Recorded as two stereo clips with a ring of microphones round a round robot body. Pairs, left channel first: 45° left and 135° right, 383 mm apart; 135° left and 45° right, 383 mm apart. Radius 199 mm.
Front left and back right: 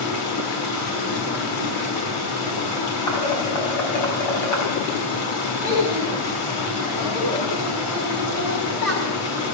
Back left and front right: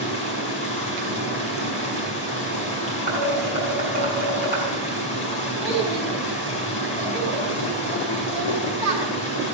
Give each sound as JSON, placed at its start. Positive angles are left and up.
{"t": 0.0, "sound": "running water", "azimuth_deg": 60, "distance_m": 5.5}
{"t": 3.1, "sound": "dishes clattering", "azimuth_deg": 20, "distance_m": 5.0}
{"t": 5.6, "sound": "a child speaking", "azimuth_deg": -20, "distance_m": 7.0}